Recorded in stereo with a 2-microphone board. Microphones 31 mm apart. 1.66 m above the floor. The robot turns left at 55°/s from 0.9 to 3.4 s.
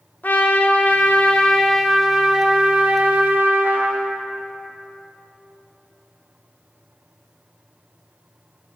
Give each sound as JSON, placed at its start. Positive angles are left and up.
{"t": 0.2, "sound": "a trumpet", "azimuth_deg": 55, "distance_m": 0.6}